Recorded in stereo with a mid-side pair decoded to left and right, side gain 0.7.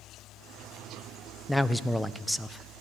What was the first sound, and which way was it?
A man speaking, 5° left.